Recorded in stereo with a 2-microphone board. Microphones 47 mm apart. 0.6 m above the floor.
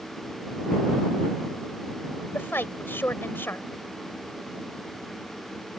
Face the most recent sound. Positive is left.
turn(degrees=55)  # may be behind; listen again after turning